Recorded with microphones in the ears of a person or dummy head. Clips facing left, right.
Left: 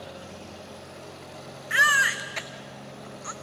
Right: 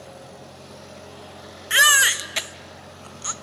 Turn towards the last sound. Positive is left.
turn(degrees=-50)  # may be behind; listen again after turning